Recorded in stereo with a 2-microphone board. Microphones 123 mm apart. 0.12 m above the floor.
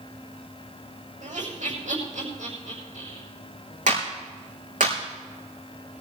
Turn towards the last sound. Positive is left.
turn(degrees=-80)